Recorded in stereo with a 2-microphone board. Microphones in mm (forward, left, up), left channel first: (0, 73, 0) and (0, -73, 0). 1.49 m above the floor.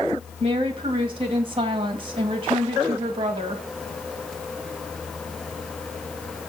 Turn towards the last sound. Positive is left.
turn(degrees=-40)  # may be behind; listen again after turning